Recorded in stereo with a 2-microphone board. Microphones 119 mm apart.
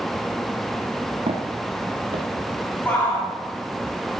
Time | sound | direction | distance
1.3 | footsteps | 60° right (ahead or behind) | 2.5 m
2.9 | a shout | 20° left (ahead or behind) | 2 m